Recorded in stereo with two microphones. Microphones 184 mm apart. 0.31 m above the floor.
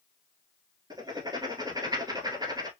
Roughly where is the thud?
I don't hear a thud.